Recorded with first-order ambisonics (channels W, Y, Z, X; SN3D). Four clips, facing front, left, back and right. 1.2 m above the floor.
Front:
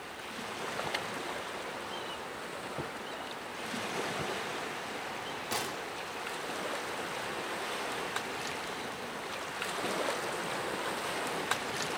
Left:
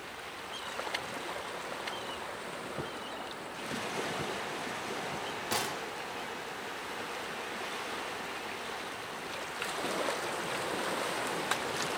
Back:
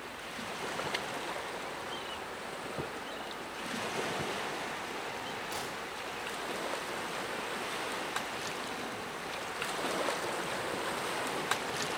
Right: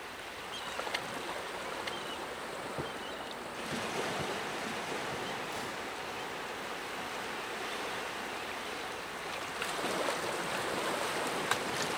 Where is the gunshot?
60° left, 1.4 m.